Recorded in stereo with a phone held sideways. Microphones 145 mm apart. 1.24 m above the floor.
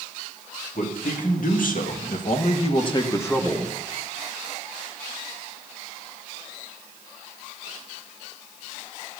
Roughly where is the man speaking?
Left.